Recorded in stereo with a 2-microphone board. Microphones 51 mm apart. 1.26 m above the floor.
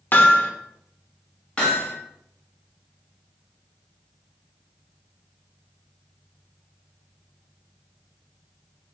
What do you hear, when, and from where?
0.1 s hammering: 40° left (ahead or behind), 0.7 m
1.6 s hammering: 20° left (ahead or behind), 1.6 m